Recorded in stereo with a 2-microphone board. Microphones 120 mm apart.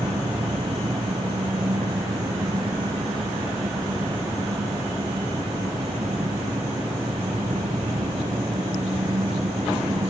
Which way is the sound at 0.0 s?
80° right.